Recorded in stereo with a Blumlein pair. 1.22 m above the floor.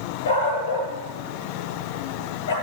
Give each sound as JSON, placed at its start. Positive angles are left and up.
{"t": 0.2, "sound": "a dog barking", "azimuth_deg": 65, "distance_m": 8.0}